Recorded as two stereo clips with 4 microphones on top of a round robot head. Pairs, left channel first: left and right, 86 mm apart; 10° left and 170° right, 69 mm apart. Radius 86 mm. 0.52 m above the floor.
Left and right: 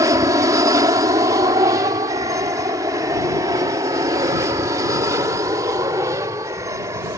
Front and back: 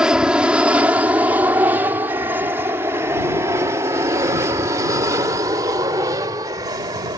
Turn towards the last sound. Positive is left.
turn(degrees=-145)